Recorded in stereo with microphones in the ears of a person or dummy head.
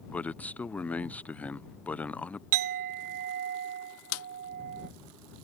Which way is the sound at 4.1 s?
80° left.